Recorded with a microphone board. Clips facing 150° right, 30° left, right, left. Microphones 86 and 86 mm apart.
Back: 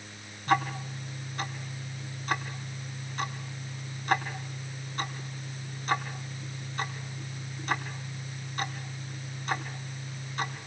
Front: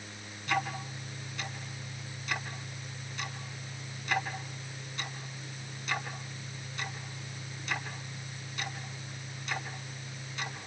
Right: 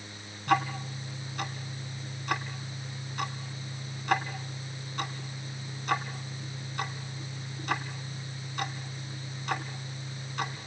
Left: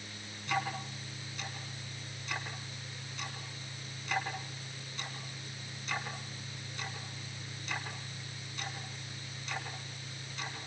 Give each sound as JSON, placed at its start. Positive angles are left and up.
{"t": 0.5, "sound": "ticking", "azimuth_deg": -110, "distance_m": 3.5}